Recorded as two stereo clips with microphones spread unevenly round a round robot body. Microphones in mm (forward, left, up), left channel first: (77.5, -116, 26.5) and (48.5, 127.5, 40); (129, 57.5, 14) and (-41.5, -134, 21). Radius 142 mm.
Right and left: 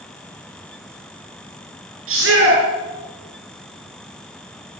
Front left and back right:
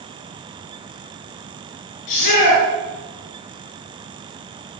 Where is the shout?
60° left, 9 m.